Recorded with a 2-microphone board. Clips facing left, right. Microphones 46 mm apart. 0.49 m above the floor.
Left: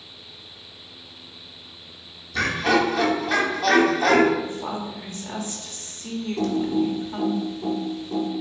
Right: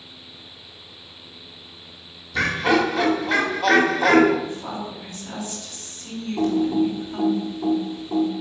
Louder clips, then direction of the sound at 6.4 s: Right 3 dB; 15° right (ahead or behind).